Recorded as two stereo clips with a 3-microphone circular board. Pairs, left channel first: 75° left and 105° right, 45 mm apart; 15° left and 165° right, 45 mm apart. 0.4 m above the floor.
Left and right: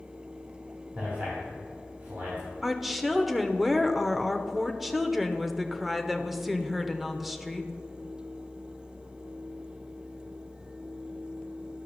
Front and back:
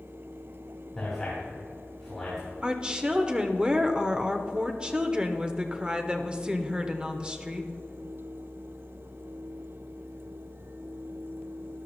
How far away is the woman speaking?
About 0.8 m.